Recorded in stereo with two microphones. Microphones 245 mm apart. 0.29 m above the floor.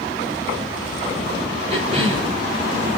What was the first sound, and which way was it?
A cough, 25° right (ahead or behind).